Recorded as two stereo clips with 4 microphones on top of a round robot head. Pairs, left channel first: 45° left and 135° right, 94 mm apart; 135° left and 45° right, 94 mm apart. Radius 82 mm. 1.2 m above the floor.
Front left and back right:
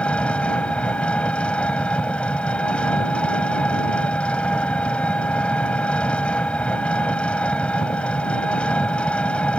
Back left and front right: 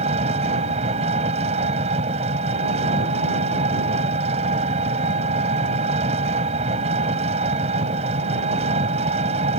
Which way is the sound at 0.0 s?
35° right.